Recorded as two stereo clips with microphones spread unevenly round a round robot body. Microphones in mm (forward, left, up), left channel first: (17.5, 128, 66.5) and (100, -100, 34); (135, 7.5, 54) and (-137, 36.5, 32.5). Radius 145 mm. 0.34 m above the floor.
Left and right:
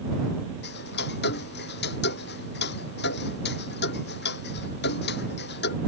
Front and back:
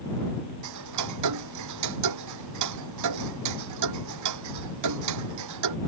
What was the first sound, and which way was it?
Ticking, 160° left.